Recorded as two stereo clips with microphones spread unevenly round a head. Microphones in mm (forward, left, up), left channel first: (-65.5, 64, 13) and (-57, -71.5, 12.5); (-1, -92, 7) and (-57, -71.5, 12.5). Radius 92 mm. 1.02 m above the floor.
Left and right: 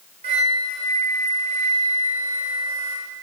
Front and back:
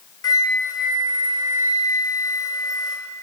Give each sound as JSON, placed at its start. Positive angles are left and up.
{"t": 0.2, "sound": "a flute", "azimuth_deg": -25, "distance_m": 0.7}